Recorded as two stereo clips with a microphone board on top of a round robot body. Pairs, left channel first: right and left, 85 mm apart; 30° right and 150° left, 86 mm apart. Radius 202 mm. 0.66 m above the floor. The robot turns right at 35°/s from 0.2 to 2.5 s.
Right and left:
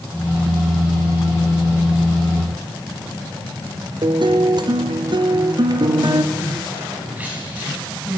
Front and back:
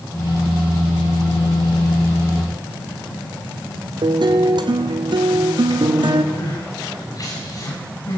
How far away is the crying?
About 8.5 m.